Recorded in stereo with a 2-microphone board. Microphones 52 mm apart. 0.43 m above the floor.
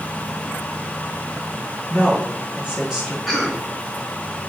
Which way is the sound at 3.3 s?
Centre (ahead or behind).